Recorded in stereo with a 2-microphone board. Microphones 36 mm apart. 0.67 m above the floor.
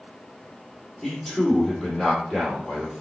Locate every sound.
1.0 s a man speaking: 10° left (ahead or behind), 2 m